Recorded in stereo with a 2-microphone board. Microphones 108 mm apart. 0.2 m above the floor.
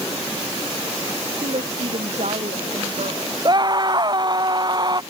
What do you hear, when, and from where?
1.4 s a woman speaking: 70° right (ahead or behind)
3.5 s a scream: 40° right (ahead or behind)